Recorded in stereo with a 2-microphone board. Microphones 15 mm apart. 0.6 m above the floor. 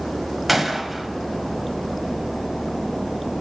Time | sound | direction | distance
0.5 | a gunshot | centre (ahead or behind) | 1.3 m